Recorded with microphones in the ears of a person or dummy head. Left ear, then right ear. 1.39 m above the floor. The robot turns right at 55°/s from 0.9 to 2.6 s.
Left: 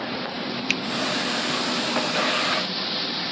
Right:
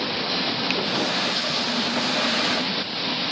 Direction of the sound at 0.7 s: 30° left (ahead or behind).